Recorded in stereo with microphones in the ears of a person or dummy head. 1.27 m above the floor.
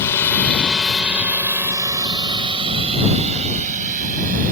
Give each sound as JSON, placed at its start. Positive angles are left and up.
{"t": 0.0, "sound": "a drone", "side_deg": 20}